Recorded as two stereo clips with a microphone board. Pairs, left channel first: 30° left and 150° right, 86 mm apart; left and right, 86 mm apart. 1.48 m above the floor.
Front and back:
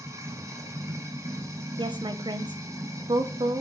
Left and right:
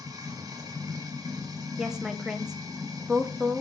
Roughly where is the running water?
Behind right.